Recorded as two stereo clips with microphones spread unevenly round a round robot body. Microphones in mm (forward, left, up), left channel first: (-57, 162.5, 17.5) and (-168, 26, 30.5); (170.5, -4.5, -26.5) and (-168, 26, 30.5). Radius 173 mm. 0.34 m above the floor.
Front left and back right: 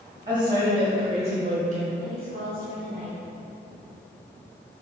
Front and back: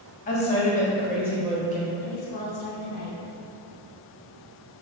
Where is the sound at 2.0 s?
60° right, 2.0 m.